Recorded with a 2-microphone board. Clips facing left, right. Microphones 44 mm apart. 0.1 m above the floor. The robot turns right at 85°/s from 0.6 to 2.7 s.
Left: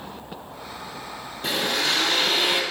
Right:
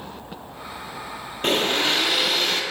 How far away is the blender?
About 1.5 m.